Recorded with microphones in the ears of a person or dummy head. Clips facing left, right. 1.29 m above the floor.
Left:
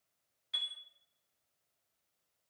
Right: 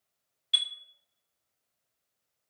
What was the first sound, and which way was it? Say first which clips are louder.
A chime: right 8 dB; 40° right (ahead or behind).